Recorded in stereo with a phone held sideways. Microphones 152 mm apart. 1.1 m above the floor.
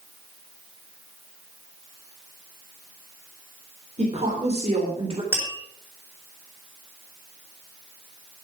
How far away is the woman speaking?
About 3.5 m.